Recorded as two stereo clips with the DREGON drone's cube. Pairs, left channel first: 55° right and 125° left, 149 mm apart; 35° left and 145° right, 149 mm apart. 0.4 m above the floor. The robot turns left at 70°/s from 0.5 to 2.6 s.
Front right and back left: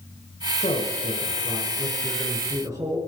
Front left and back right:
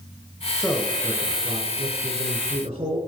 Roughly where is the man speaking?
Ahead right.